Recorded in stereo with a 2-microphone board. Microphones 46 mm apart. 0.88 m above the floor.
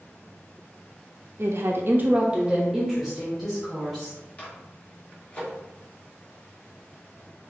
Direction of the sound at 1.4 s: 55° right (ahead or behind).